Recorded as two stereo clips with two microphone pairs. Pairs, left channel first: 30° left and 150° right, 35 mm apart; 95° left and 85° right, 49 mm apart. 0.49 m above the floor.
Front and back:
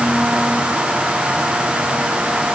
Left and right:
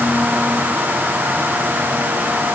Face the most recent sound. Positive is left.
No sound to turn to.